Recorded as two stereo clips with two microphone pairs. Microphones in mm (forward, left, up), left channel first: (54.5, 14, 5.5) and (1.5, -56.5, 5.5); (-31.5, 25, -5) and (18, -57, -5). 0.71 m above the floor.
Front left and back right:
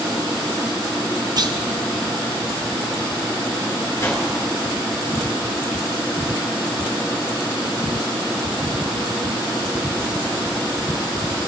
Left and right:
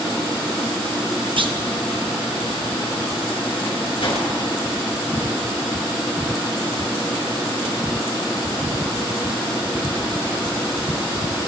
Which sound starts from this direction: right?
A clunk, at 1.4 s.